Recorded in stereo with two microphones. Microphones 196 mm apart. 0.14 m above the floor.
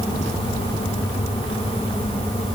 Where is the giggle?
No giggle in this recording.